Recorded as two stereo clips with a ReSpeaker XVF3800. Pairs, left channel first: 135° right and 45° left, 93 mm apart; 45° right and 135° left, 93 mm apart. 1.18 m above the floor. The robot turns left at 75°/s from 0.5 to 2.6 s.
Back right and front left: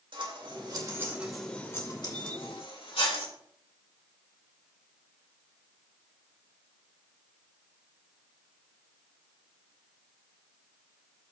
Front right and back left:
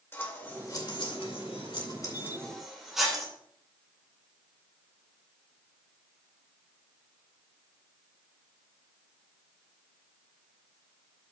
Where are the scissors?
20° left, 2 m; by 3.3 s 140° right, 2 m.